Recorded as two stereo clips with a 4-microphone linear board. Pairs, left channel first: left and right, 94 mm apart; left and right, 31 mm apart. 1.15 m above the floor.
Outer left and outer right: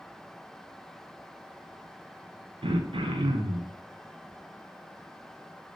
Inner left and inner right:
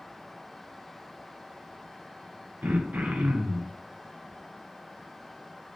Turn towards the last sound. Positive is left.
turn(degrees=-70)  # may be behind; listen again after turning